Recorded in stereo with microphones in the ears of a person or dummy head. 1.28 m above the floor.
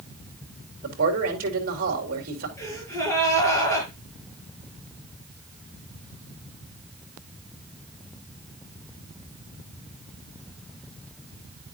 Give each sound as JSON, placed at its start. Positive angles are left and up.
{"t": 0.8, "sound": "a man speaking", "side_deg": -55, "distance_m": 4.0}
{"t": 2.6, "sound": "a gasp", "side_deg": 15, "distance_m": 5.5}